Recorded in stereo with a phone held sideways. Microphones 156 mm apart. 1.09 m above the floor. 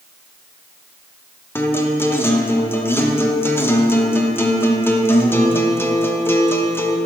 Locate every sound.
1.6 s a guitar: 15° left (ahead or behind), 0.6 m